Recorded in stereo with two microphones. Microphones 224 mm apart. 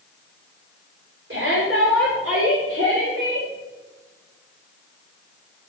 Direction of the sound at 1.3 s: 65° right (ahead or behind).